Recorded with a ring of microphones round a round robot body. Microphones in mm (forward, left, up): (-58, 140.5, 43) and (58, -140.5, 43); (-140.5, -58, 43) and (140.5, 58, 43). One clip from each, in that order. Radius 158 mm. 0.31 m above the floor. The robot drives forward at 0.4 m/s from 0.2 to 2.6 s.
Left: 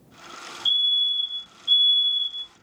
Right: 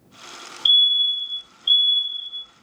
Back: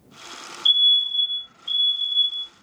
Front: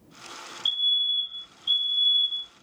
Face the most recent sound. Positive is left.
turn(degrees=-70)